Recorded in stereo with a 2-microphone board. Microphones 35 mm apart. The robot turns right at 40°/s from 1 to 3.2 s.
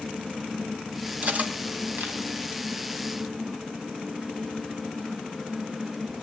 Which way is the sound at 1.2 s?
40° right (ahead or behind).